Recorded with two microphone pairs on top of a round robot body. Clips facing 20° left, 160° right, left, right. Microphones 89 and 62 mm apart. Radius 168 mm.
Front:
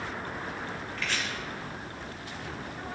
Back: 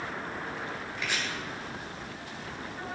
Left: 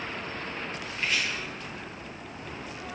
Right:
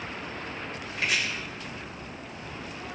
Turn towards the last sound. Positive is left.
turn(degrees=-85)